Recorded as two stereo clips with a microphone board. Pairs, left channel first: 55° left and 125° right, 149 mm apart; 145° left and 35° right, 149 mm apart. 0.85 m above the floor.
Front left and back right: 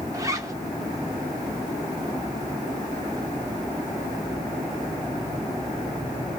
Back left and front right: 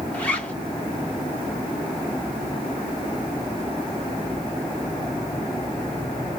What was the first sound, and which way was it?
A zipper, 145° right.